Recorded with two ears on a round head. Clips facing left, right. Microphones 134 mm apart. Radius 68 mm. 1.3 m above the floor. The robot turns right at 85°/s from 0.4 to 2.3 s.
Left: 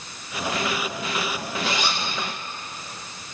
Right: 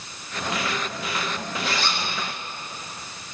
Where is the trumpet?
No trumpet in this recording.